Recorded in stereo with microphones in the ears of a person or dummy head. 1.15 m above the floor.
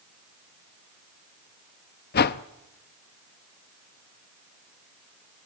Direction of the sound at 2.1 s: 50° left (ahead or behind).